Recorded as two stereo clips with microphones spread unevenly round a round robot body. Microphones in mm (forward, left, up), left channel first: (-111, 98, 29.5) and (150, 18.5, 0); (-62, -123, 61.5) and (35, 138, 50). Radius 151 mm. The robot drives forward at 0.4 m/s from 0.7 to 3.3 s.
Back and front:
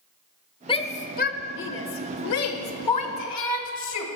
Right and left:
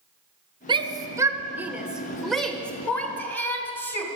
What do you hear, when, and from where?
0.7 s a shout: 105° left, 0.8 m; by 4.0 s 165° left, 1.4 m